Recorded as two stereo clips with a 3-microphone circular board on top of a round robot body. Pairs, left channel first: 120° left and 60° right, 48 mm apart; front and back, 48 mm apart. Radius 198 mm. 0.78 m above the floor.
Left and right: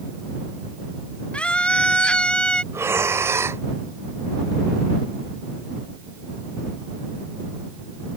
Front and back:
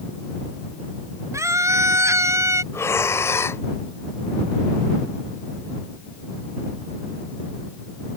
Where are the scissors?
I don't hear scissors.